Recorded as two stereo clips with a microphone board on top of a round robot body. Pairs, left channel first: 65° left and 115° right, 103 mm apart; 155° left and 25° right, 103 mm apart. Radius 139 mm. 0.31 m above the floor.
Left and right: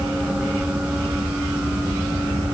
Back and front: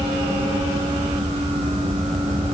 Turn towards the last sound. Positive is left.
No sound to turn to.